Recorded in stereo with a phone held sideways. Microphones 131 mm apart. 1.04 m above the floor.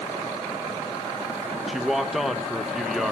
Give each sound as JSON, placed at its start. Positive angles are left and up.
{"t": 1.7, "sound": "a man speaking", "side_deg": -5, "distance_m": 0.9}